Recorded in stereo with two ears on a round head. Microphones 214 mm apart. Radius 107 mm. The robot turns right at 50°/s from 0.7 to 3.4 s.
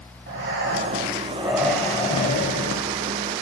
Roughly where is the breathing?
Ahead right.